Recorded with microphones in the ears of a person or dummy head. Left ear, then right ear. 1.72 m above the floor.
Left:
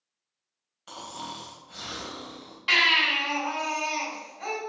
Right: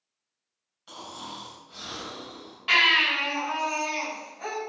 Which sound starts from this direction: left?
Snoring, at 0.9 s.